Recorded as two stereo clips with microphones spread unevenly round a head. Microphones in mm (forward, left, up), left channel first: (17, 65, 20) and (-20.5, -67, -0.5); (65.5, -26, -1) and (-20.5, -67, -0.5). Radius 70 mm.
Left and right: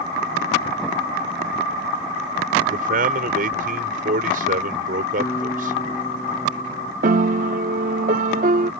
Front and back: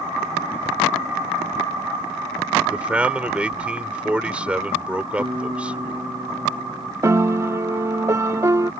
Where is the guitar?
145° left.